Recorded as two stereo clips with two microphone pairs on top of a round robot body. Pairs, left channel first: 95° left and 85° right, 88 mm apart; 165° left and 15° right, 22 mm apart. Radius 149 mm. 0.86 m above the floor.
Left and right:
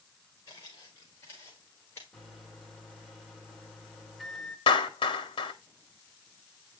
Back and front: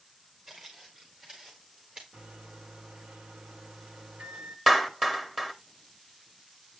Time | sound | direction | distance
0.5 | footsteps | 40° left | 4 m
2.1 | a microwave | 10° left | 2.5 m
4.7 | a clap | 60° left | 1.5 m